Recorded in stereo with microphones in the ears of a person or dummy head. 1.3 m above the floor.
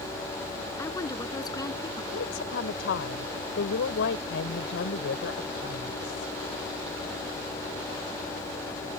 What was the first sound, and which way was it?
A woman speaking, 15° left (ahead or behind).